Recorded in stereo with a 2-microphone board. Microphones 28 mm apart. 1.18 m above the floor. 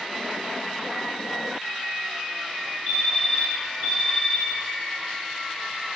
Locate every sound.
2.9 s a fire alarm: 55° right (ahead or behind), 7.5 m